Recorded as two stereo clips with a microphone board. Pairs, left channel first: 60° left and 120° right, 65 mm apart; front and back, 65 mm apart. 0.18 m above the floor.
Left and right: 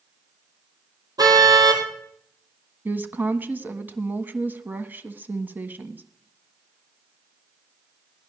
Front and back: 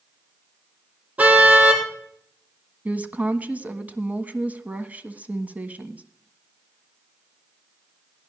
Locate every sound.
1.2 s a car horn: 115° right, 3 m
2.9 s a woman speaking: 140° right, 1.3 m